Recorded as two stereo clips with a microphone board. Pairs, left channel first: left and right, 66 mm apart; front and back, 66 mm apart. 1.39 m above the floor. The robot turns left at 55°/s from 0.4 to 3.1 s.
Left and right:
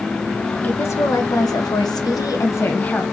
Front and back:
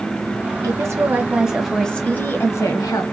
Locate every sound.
0.6 s a woman speaking: 150° left, 0.9 m; by 3.0 s 15° left, 0.9 m